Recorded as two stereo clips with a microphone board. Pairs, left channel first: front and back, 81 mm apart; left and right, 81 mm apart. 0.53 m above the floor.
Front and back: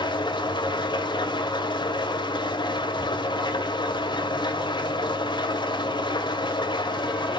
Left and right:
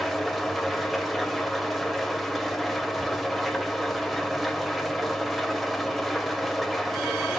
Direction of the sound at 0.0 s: Straight ahead.